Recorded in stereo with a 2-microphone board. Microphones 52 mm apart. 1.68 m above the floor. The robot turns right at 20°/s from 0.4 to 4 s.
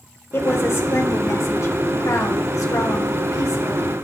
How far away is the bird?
No bird in this recording.